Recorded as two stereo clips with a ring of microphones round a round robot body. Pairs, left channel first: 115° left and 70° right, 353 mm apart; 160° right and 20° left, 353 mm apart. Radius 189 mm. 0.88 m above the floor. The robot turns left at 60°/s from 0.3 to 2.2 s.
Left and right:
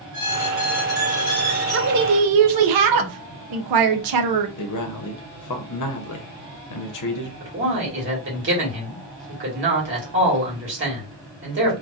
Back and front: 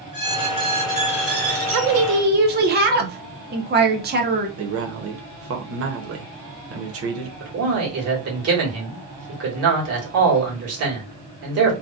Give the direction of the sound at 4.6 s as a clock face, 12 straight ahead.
10 o'clock.